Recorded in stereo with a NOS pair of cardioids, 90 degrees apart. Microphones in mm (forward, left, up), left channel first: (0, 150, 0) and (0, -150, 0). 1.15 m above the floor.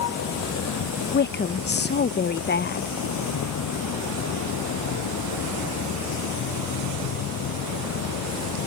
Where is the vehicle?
65° left; by 8.7 s 75° left.